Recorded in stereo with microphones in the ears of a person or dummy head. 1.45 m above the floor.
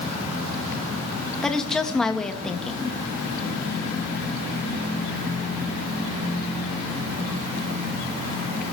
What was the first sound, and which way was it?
A woman speaking, centre (ahead or behind).